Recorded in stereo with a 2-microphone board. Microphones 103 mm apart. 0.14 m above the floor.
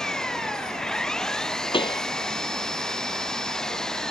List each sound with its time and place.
0.0 s an engine running: 5° left (ahead or behind)
1.7 s a pop: 60° left (ahead or behind)